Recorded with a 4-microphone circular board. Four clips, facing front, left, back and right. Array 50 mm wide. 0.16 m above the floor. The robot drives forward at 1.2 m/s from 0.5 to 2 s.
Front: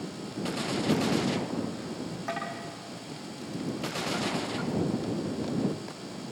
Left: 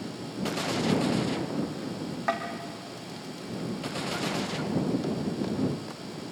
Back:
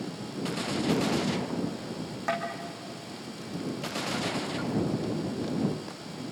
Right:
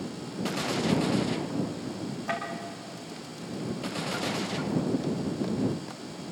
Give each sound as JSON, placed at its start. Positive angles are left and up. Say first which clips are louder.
{"t": 2.3, "sound": "tapping", "louder": "left 3 dB, back 4 dB", "azimuth_deg": 110, "distance_m": 4.5}